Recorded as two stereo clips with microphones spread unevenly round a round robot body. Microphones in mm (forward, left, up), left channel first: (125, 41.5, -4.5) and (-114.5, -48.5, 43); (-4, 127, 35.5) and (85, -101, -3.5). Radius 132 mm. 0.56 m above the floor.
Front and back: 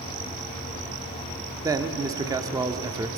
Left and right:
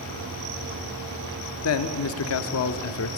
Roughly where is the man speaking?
Behind left.